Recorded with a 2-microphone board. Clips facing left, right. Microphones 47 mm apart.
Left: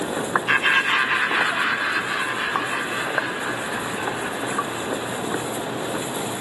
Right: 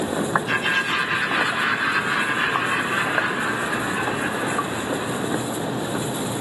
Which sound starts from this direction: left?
Laughter, at 0.5 s.